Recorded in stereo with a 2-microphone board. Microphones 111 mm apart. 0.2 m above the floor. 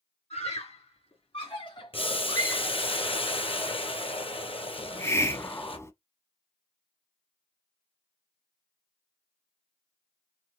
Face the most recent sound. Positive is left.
turn(degrees=25)  # may be behind; listen again after turning